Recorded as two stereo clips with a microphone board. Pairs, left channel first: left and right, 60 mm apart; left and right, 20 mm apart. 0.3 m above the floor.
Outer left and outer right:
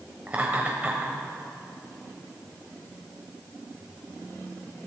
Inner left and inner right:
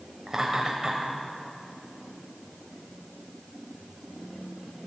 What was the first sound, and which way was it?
Laughter, 25° right (ahead or behind).